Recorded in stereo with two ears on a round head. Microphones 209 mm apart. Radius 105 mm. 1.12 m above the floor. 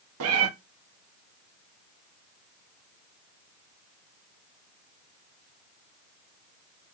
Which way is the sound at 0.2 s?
60° right (ahead or behind).